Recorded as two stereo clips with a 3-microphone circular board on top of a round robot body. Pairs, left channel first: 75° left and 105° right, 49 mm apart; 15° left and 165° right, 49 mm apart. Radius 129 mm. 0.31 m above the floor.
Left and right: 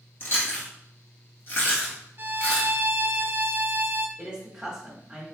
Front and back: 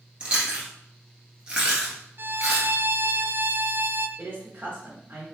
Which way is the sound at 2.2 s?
140° right.